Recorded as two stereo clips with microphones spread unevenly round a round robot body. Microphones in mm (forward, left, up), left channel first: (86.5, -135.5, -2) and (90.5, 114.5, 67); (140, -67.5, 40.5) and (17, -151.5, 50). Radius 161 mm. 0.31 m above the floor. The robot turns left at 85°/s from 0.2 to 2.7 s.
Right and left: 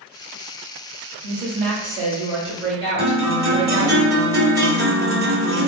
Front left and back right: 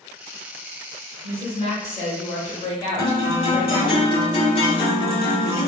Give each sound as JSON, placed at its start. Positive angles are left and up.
{"t": 1.2, "sound": "a woman speaking", "azimuth_deg": 165, "distance_m": 1.4}
{"t": 3.0, "sound": "a guitar", "azimuth_deg": 40, "distance_m": 1.1}